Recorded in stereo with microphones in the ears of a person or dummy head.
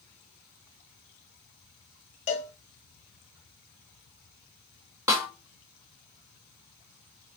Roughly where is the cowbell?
Left.